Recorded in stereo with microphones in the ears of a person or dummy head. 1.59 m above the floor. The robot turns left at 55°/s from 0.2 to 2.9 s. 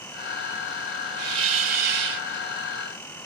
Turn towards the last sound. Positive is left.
turn(degrees=-120)